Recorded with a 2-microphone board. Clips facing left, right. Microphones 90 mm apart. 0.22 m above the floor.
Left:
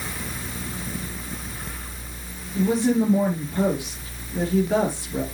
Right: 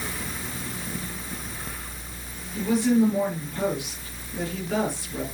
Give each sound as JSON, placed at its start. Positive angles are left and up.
{"t": 2.5, "sound": "a woman speaking", "side_deg": 30, "distance_m": 5.0}